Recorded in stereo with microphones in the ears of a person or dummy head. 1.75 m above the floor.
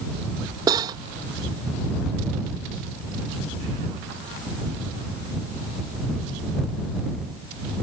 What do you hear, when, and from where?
0.7 s cutlery clinking: 20° right (ahead or behind)